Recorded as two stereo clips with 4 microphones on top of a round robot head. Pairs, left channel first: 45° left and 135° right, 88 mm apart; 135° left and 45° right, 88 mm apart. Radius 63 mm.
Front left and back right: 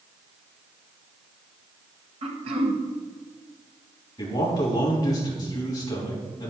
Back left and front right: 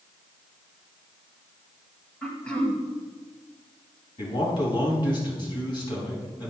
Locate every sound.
2.2 s throat clearing: 145° right, 2.0 m
4.2 s a man speaking: 100° left, 4.5 m